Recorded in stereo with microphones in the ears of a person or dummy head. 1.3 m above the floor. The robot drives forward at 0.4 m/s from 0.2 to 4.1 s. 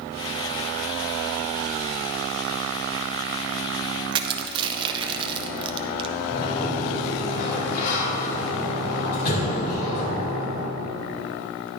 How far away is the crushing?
About 0.6 m.